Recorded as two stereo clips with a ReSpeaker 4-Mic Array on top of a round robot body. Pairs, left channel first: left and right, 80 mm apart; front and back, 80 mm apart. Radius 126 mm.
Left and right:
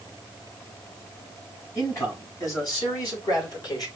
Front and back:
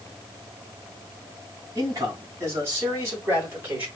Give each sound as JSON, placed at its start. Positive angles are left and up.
{"t": 1.8, "sound": "a man speaking", "azimuth_deg": 135, "distance_m": 3.5}